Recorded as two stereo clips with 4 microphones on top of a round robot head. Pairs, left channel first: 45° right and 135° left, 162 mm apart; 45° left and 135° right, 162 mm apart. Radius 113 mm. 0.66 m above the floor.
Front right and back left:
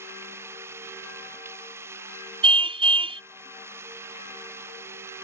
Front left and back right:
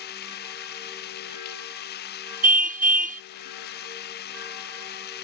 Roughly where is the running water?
Ahead left.